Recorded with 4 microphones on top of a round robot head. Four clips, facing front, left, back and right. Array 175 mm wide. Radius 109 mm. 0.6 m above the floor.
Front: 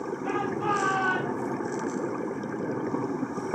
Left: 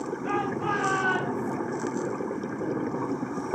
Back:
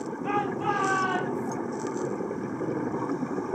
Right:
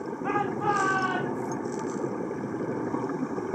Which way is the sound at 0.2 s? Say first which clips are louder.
Right 2 dB, back 1 dB; 110° right.